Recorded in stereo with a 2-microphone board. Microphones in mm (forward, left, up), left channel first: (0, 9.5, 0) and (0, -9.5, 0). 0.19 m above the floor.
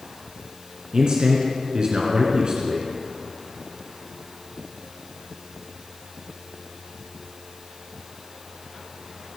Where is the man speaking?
45° right (ahead or behind), 2 m.